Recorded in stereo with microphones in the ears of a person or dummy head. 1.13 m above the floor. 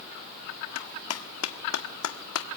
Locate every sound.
0.8 s a clap: 85° left, 1.6 m